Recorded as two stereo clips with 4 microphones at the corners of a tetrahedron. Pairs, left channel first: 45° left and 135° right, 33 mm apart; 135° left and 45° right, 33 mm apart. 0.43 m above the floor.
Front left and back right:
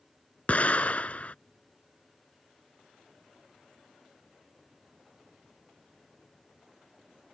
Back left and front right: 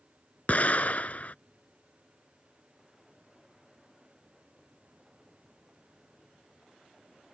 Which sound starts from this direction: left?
An explosion, at 0.5 s.